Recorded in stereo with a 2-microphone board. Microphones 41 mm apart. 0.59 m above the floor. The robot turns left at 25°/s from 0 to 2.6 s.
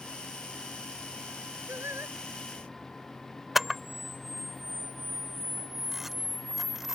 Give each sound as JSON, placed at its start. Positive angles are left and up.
{"t": 1.7, "sound": "singing", "side_deg": -85}
{"t": 3.5, "sound": "a camera shutter", "side_deg": -5}